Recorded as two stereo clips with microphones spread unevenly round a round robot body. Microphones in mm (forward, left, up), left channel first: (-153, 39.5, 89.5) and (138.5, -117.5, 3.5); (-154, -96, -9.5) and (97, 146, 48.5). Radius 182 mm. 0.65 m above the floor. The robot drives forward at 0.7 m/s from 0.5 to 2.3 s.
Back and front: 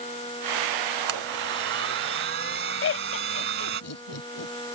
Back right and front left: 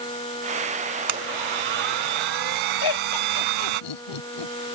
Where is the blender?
30° left.